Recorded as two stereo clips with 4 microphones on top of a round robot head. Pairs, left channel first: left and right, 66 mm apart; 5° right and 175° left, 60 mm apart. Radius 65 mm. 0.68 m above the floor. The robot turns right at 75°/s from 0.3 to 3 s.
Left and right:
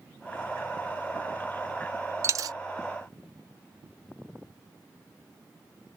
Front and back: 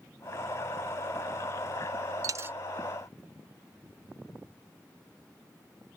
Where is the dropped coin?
135° right; by 2.6 s 110° right.